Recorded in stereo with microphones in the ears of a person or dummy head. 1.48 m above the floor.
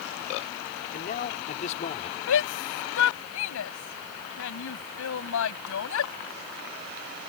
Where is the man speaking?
45° left (ahead or behind); by 2.2 s 35° left (ahead or behind).